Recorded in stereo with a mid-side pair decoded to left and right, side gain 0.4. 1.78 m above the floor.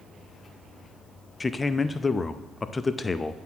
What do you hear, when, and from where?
1.4 s a man speaking: 30° left, 0.5 m